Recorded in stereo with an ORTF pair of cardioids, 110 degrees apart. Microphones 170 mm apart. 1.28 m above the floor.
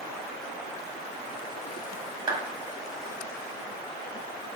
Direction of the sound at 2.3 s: 25° right.